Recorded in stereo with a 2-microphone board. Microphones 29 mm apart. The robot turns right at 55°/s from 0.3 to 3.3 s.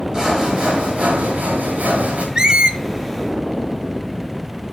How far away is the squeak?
About 0.8 m.